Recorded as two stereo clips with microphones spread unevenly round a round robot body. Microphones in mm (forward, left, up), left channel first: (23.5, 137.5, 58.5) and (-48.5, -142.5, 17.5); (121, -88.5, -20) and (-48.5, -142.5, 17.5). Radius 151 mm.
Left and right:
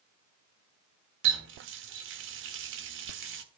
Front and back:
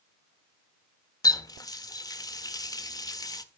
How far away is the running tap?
About 1.4 m.